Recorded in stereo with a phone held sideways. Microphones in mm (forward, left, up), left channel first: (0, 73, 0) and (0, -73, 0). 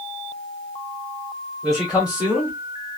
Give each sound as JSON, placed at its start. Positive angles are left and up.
{"t": 1.6, "sound": "a man speaking", "side_deg": 0, "distance_m": 2.0}